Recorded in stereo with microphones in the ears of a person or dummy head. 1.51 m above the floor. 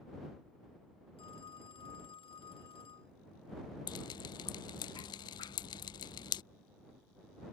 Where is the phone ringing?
25° left (ahead or behind).